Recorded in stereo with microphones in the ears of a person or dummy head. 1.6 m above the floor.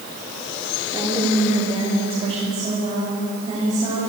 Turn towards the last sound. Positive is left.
turn(degrees=-30)  # may be behind; listen again after turning